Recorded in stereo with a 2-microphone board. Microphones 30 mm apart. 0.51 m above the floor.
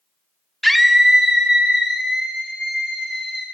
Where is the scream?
5° left (ahead or behind), 0.9 m; by 3.4 s 40° right (ahead or behind), 3 m.